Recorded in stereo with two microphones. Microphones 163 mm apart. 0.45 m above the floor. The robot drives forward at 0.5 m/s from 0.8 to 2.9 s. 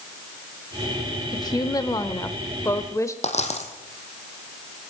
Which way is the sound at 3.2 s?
45° left (ahead or behind).